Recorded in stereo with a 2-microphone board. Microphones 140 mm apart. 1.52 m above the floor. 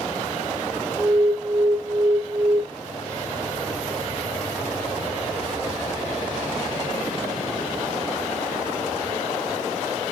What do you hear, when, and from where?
1.0 s an alarm: 10° left (ahead or behind), 1.2 m